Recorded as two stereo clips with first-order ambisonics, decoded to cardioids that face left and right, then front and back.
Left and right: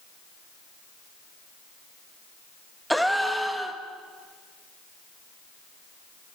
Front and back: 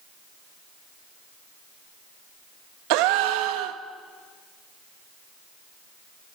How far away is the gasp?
About 1.4 m.